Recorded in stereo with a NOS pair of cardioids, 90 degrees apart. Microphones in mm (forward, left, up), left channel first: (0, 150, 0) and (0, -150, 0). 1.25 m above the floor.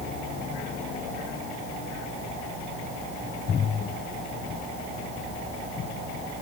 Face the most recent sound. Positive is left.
No sound to turn to.